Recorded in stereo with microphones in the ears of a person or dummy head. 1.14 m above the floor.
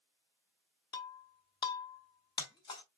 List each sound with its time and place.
0.9 s breaking glass: 25° left (ahead or behind), 0.9 m